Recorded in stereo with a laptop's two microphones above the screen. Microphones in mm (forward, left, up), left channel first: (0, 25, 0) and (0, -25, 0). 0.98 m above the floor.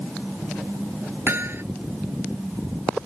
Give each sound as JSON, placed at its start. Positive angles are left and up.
{"t": 1.3, "sound": "hammering", "side_deg": -50}